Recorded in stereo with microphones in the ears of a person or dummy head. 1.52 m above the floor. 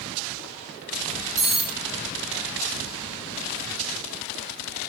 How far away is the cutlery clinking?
About 1.7 m.